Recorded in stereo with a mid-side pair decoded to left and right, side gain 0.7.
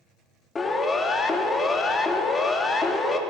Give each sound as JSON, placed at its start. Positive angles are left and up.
{"t": 0.6, "sound": "a siren", "azimuth_deg": 25, "distance_m": 2.5}